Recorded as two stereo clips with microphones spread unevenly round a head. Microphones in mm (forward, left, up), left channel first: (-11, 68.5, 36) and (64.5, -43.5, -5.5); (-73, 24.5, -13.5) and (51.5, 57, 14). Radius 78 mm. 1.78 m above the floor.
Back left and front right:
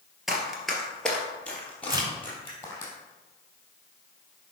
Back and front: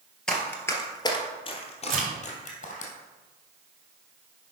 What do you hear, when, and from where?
0.3 s running footsteps: 85° left, 1.8 m; by 2.9 s 175° right, 3 m
1.9 s a crack: 10° left, 4 m